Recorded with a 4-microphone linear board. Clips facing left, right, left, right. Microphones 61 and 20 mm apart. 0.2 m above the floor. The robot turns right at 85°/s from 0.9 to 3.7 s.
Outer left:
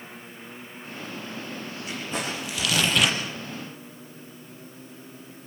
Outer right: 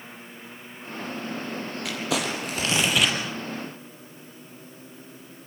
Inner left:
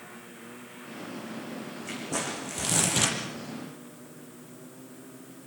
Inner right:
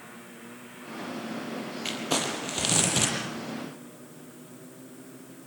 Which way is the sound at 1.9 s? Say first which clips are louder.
Outer right 4 dB, inner right 4 dB; 100° right.